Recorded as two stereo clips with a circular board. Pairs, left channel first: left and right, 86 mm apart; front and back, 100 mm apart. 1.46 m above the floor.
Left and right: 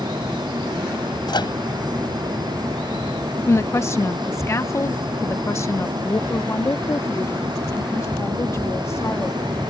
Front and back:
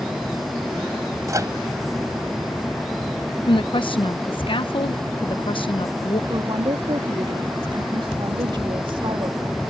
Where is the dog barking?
I don't hear a dog barking.